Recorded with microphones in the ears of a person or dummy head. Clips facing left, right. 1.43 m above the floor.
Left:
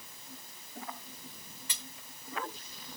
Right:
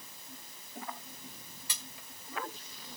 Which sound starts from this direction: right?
Cutlery clinking, at 1.7 s.